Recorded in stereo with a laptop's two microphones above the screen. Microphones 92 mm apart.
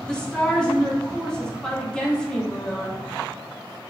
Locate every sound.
0.1 s a woman speaking: 10° left (ahead or behind), 0.6 m